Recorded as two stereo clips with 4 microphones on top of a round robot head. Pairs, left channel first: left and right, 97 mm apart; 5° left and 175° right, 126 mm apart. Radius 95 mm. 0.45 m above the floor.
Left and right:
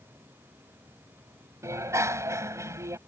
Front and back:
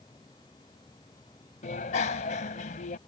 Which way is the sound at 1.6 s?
30° right.